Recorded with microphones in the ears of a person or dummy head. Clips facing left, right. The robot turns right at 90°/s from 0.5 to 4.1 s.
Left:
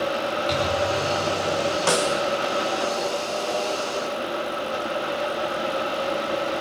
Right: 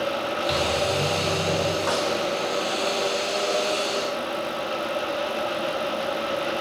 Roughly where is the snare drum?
Behind left.